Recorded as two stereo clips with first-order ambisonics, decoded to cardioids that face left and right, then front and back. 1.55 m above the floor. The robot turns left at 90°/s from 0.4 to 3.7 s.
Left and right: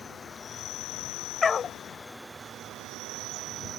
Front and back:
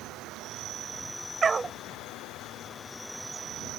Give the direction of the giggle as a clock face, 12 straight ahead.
I don't hear a giggle.